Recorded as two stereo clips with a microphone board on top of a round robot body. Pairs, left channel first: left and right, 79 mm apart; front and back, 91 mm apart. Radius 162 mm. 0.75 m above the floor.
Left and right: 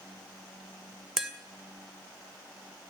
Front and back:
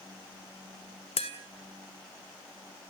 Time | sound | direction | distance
1.2 | tapping | 5° right | 2.5 m